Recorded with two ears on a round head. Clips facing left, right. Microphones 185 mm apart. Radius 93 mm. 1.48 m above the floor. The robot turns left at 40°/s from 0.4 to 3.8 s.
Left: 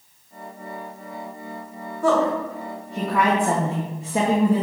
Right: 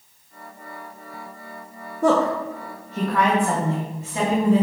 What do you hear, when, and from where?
2.0 s a woman speaking: 40° right (ahead or behind), 1.8 m; by 4.6 s 35° left (ahead or behind), 1.8 m